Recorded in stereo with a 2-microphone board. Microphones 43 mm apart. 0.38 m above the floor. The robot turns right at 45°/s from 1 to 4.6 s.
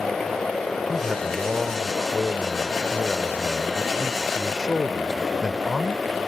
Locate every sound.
0.9 s a man speaking: 20° right (ahead or behind); by 6.0 s 15° left (ahead or behind)